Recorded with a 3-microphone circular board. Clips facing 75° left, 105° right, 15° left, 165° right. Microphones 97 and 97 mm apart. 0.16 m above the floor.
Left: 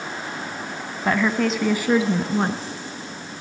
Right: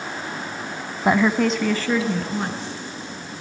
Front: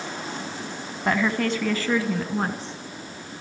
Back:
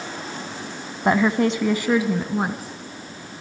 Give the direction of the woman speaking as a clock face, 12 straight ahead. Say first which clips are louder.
Right 3 dB, back 5 dB; 5 o'clock.